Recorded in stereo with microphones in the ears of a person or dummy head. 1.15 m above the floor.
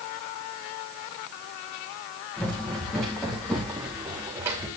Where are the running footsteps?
5° left (ahead or behind), 3.5 m; by 4.7 s 15° right (ahead or behind), 4 m.